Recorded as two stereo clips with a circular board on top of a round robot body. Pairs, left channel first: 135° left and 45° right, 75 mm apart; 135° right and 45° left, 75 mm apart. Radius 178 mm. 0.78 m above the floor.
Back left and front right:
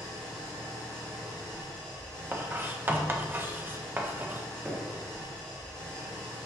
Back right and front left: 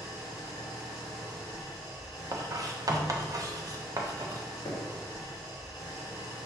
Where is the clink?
I don't hear a clink.